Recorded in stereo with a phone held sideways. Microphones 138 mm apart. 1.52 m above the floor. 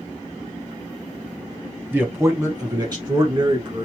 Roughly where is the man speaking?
Centre.